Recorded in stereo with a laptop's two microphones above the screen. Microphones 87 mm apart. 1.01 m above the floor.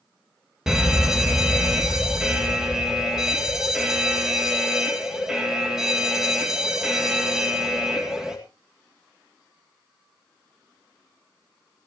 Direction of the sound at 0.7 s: 5° right (ahead or behind).